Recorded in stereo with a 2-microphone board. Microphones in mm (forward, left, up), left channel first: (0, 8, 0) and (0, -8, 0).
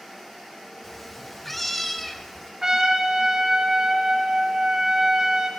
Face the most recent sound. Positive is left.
turn(degrees=-40)  # may be behind; listen again after turning